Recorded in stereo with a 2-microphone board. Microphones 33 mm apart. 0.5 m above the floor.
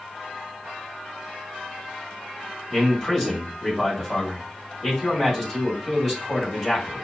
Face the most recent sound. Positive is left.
turn(degrees=10)  # may be behind; listen again after turning